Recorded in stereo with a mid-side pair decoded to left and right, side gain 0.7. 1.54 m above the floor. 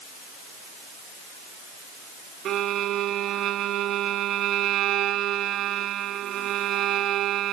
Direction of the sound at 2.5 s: 50° right.